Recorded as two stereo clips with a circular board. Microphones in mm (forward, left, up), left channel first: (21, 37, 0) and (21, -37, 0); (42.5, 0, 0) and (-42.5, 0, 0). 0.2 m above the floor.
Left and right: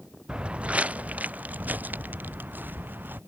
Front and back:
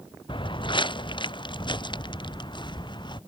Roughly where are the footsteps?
Ahead.